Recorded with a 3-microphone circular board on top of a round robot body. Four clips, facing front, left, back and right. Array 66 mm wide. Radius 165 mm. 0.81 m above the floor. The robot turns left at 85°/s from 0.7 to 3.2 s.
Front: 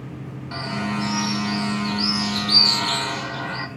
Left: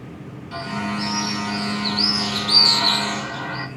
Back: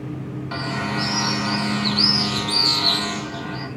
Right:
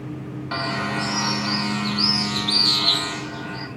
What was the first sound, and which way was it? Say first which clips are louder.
A bird: right 1 dB, back 1 dB; 100° right.